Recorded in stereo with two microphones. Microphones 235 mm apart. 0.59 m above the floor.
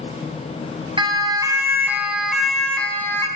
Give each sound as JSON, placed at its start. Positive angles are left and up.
{"t": 1.0, "sound": "a siren", "side_deg": -20, "distance_m": 5.0}